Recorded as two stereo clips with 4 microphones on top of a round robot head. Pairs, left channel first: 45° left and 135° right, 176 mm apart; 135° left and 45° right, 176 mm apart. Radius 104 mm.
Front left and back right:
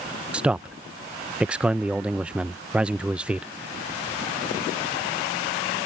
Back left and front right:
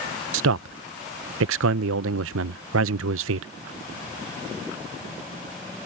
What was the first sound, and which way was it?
A man speaking, 50° right.